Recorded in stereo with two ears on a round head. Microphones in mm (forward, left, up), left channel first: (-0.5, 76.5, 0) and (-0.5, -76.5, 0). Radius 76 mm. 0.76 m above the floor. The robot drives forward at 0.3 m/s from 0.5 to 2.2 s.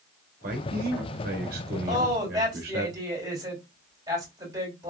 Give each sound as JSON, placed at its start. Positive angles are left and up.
{"t": 0.4, "sound": "a man speaking", "side_deg": -55, "distance_m": 1.0}
{"t": 1.9, "sound": "a woman speaking", "side_deg": -25, "distance_m": 2.0}